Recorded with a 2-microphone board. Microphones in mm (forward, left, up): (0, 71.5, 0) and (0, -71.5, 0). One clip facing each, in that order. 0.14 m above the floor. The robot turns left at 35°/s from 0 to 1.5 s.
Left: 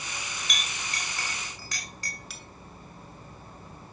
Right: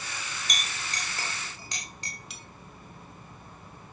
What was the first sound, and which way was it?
A clink, 40° right (ahead or behind).